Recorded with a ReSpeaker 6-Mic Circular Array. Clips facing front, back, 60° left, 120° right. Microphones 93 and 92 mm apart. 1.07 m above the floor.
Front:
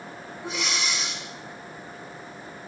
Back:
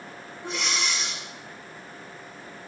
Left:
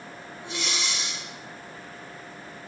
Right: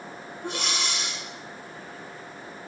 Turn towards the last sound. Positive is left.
turn(degrees=-90)